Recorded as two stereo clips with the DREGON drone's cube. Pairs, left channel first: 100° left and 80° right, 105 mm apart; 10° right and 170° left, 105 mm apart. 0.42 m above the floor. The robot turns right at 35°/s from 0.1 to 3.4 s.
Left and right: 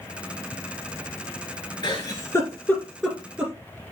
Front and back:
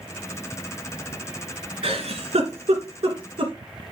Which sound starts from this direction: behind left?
A giggle, at 1.8 s.